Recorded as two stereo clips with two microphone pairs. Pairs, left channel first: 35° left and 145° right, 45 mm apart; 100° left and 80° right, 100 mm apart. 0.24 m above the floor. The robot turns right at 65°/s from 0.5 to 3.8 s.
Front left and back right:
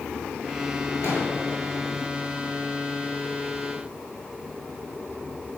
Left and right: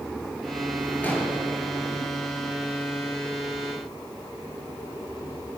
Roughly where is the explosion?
Ahead left.